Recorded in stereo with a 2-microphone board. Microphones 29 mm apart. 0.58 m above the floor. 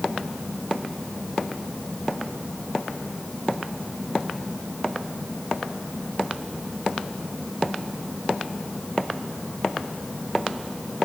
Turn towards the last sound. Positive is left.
No sound to turn to.